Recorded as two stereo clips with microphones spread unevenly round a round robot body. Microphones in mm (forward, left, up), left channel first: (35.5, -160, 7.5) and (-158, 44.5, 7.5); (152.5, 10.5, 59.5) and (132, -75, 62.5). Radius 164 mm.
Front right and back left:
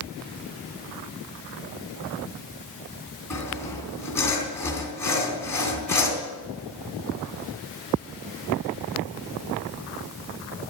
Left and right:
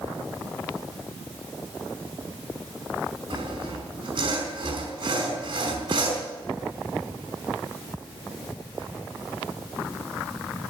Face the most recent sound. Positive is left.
turn(degrees=-130)